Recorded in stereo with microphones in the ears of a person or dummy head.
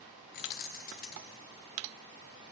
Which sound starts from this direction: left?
Keys jangling, at 0.3 s.